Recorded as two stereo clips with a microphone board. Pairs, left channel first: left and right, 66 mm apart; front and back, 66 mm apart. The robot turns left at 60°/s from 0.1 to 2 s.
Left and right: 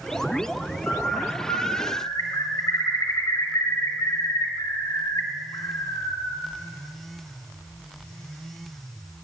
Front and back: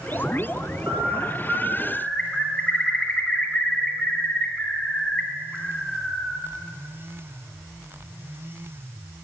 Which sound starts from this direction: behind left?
A bird, at 0.9 s.